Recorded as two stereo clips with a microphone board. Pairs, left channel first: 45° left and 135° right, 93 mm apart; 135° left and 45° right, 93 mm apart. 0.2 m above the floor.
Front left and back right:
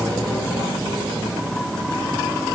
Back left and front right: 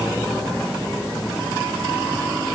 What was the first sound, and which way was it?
Only background noise.